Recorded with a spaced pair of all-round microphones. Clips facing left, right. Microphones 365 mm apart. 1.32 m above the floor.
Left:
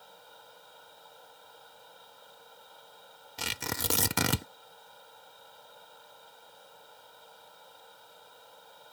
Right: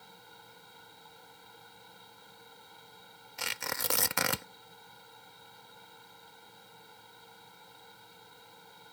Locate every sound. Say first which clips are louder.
0.0 s a fan: left 1 dB; 35° right (ahead or behind)
3.4 s tearing paper: left 3 dB; 45° left (ahead or behind)